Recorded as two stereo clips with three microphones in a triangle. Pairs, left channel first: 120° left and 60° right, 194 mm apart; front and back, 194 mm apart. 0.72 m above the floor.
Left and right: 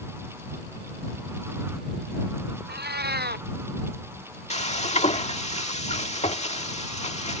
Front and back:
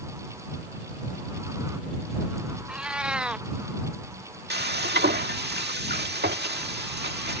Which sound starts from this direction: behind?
Frying, at 4.5 s.